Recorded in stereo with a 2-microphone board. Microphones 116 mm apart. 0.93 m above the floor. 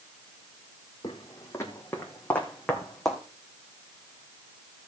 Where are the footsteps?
35° left (ahead or behind), 2 m; by 3.2 s centre (ahead or behind), 2.5 m.